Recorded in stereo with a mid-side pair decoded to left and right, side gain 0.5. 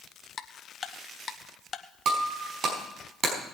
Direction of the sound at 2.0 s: 55° right.